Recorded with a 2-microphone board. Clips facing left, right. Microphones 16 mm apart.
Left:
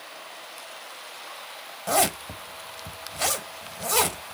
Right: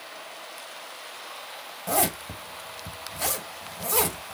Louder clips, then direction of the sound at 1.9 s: Left 3 dB; 25° left (ahead or behind).